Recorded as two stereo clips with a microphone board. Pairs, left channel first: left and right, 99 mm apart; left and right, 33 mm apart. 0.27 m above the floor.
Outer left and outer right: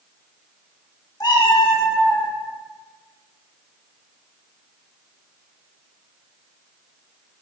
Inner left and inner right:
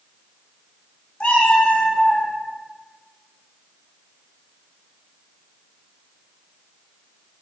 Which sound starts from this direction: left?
A cat meowing, at 1.2 s.